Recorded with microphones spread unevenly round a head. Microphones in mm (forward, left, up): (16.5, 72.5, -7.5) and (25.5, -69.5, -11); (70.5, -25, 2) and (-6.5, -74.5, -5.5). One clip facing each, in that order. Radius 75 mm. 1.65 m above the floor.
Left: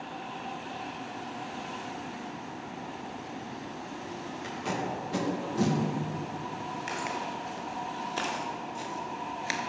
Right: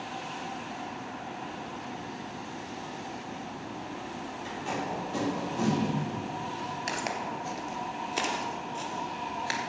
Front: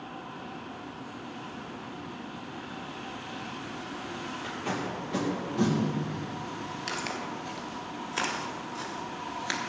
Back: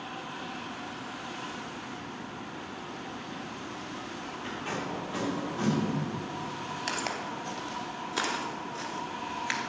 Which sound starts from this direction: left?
Tape being pulled, at 4.4 s.